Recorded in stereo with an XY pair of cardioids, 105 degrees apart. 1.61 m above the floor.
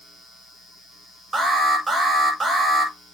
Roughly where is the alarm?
Ahead right.